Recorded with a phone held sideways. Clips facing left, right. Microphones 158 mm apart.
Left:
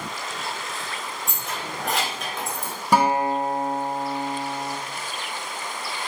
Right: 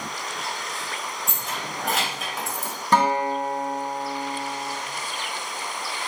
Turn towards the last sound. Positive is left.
turn(degrees=10)  # may be behind; listen again after turning